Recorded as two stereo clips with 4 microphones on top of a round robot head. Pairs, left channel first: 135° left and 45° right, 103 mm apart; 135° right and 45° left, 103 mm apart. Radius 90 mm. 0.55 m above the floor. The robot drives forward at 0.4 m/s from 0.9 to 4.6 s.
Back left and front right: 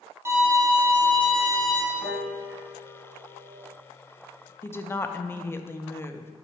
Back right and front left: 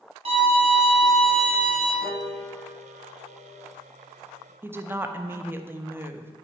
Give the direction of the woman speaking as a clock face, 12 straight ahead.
9 o'clock.